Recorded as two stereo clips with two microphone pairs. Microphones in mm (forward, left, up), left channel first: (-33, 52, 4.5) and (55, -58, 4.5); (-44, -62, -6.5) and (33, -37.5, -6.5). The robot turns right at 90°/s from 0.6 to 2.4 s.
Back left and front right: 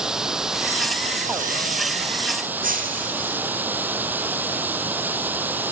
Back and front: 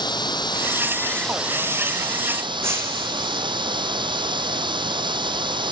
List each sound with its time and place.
0.0 s running water: 135° right, 1.3 m; by 5.7 s 25° left, 1.3 m
2.6 s breaking glass: 40° right, 3 m